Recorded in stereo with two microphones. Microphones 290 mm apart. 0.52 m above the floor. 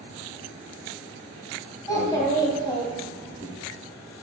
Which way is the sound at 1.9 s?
15° left (ahead or behind).